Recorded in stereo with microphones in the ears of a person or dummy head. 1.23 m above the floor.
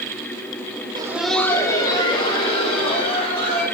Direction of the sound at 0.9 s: 25° right (ahead or behind).